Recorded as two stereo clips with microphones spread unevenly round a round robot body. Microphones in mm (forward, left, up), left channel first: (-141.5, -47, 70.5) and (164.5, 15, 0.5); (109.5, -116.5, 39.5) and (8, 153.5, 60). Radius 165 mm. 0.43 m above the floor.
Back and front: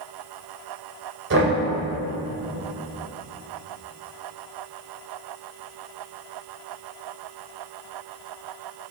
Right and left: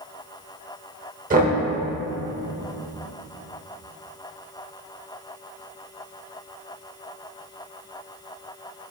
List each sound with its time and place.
1.3 s knocking: 50° left, 1.5 m